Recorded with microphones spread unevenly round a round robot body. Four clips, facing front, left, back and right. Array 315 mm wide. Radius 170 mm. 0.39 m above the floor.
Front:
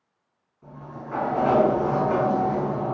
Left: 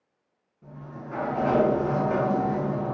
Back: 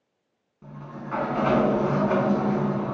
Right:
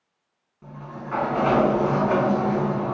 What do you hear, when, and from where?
0.6 s a sliding door: 140° right, 0.6 m